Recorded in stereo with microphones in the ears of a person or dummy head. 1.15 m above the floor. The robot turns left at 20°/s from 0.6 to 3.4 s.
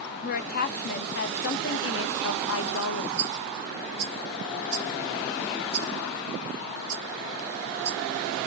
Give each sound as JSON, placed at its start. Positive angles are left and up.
{"t": 0.2, "sound": "a woman speaking", "azimuth_deg": 120, "distance_m": 0.5}
{"t": 3.2, "sound": "a rattle", "side_deg": -70, "distance_m": 2.0}